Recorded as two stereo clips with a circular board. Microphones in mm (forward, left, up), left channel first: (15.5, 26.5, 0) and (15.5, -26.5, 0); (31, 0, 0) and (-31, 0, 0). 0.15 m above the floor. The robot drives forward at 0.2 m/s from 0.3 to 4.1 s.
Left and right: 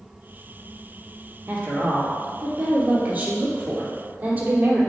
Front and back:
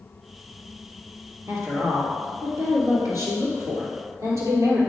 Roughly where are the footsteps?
No footsteps in this recording.